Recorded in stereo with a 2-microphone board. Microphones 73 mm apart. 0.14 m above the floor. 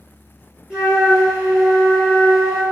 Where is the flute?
15° right (ahead or behind), 1.1 m.